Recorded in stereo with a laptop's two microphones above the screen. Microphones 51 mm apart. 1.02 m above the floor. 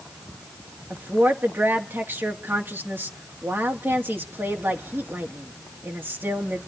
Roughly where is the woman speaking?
Right.